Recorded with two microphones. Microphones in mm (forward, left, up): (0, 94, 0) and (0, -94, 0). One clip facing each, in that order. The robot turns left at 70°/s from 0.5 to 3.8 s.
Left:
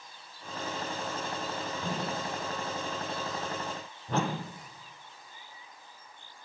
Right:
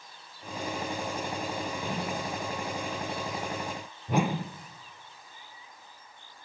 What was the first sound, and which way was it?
A whoosh, 45° left (ahead or behind).